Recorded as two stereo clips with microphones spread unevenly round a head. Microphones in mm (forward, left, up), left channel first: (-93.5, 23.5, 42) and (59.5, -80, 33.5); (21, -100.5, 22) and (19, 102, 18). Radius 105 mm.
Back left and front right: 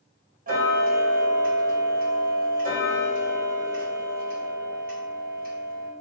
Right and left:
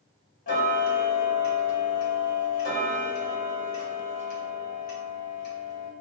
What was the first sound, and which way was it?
Ticking, 60° right.